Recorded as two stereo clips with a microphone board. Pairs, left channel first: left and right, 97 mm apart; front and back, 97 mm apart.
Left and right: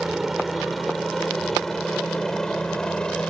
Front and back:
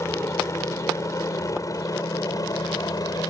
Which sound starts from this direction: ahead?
A helicopter, at 0.0 s.